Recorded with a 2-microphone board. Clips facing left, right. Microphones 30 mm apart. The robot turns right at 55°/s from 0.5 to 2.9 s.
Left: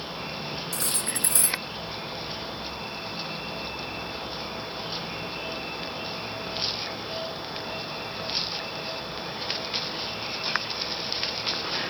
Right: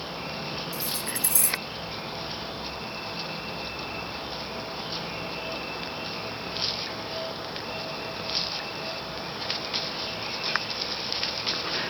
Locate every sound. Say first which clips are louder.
0.7 s cutlery clinking: left 1 dB; 95° left; by 1.6 s 145° left